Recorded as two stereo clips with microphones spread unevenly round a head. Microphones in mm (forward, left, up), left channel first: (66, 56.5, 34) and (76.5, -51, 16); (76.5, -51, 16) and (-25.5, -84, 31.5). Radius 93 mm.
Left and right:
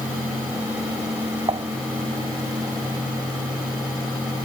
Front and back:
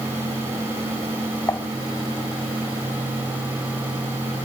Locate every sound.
1.5 s dishes clattering: 40° right